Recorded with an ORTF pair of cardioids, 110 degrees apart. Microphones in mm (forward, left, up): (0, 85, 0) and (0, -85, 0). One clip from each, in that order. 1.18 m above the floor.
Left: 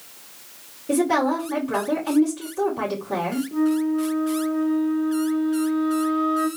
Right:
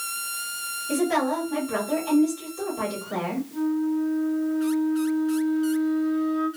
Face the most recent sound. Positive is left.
turn(degrees=40)